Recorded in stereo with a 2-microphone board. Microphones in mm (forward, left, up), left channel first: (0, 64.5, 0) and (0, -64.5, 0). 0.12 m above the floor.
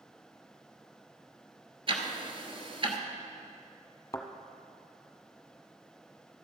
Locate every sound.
1.9 s ticking: 45° right (ahead or behind), 1.1 m
4.1 s a thud: 25° left (ahead or behind), 1.0 m